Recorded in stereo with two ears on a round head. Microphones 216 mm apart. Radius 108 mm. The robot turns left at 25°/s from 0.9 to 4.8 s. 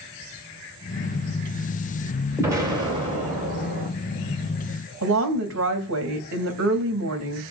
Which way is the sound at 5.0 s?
55° right (ahead or behind).